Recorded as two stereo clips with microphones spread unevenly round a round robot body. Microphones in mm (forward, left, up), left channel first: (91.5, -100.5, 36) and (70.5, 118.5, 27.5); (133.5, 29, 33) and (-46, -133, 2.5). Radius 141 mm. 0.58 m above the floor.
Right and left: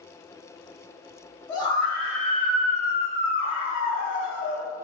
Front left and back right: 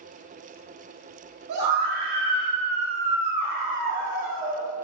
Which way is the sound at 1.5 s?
170° right.